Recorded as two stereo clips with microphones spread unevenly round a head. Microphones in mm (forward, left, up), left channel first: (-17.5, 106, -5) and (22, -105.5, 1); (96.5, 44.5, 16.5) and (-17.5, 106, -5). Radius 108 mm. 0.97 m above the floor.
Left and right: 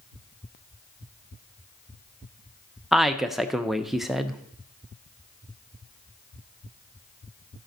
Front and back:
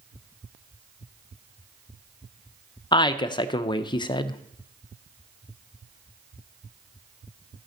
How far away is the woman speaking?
About 0.6 m.